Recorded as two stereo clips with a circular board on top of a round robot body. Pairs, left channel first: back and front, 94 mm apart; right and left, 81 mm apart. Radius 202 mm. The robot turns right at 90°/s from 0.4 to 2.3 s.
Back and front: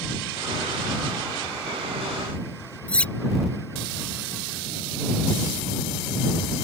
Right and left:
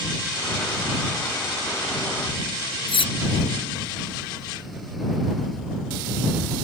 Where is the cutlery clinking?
100° right.